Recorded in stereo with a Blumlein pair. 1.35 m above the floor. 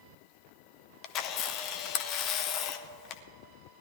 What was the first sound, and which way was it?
A camera shutter, 35° left.